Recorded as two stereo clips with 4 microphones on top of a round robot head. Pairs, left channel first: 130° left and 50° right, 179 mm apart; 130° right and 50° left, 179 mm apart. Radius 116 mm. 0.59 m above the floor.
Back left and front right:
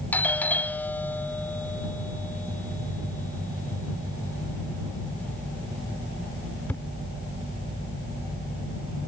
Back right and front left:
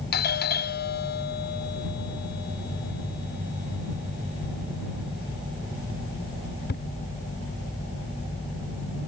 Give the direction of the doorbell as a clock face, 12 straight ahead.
5 o'clock.